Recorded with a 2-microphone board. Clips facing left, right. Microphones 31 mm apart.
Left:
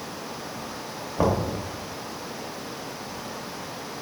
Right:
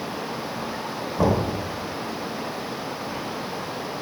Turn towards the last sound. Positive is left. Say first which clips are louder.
# right 2 dB
turn(degrees=15)  # may be behind; listen again after turning